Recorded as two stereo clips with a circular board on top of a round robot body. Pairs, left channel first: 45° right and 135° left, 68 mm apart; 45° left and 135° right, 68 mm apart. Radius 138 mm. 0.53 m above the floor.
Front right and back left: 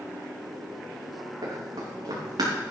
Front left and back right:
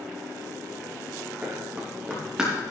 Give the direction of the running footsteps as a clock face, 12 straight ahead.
7 o'clock.